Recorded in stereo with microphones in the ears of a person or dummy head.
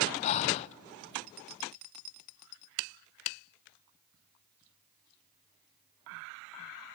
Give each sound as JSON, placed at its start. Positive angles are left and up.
{"t": 0.2, "sound": "breathing", "side_deg": 35, "distance_m": 0.6}